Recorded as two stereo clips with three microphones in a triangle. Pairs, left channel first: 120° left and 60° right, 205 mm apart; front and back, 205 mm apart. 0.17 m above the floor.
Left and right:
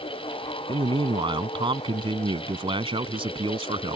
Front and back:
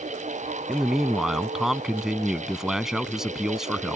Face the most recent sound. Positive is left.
turn(degrees=-95)